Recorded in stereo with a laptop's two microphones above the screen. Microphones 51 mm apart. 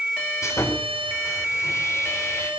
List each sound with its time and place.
0.4 s sawing: 75° left (ahead or behind), 4.5 m